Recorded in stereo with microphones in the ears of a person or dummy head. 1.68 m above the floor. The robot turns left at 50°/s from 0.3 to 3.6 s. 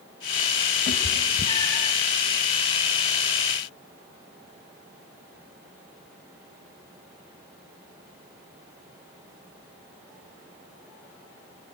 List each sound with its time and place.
0.9 s a cat meowing: 35° left (ahead or behind), 1.7 m; by 1.9 s 15° left (ahead or behind), 1.7 m